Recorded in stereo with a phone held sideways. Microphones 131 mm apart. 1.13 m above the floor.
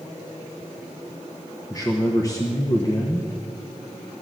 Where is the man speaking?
25° left (ahead or behind), 1.0 m.